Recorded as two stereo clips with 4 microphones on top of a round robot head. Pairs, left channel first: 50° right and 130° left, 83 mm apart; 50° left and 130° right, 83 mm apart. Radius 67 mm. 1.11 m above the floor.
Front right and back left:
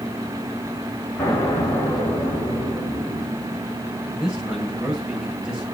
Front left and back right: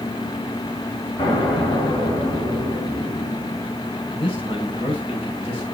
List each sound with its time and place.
1.2 s an explosion: 15° left, 5.5 m
4.1 s a man speaking: 45° left, 6.5 m